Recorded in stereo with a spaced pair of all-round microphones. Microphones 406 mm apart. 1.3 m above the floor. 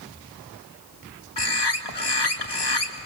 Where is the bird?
75° left (ahead or behind), 1.8 m.